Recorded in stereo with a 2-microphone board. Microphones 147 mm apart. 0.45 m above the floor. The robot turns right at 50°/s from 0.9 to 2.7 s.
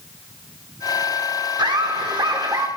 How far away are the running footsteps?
No running footsteps in this recording.